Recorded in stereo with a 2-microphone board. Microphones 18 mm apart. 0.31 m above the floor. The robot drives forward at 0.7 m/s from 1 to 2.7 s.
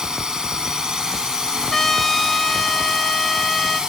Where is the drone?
50° right (ahead or behind); by 3.9 s 55° right (ahead or behind).